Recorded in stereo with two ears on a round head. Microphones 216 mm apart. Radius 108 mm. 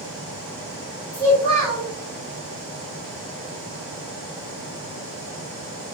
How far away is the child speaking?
About 1.8 m.